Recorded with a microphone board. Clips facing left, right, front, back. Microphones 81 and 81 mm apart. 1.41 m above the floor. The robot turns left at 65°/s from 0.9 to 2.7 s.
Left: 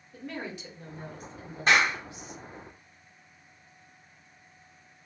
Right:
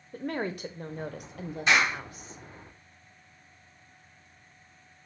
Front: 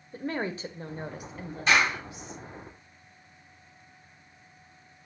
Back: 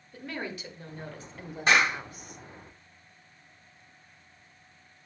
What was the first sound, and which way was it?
A woman speaking, 55° right.